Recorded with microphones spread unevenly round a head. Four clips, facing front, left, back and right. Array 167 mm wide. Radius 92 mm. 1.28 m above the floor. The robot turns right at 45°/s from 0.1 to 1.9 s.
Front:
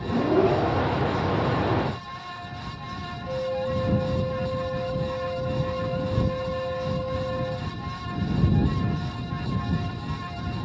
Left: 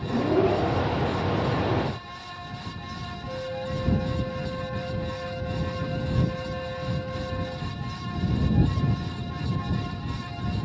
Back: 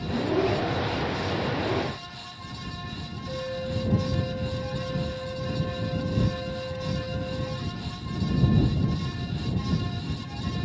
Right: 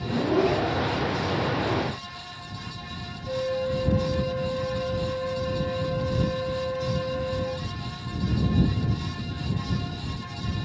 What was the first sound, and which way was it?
A flute, 55° right.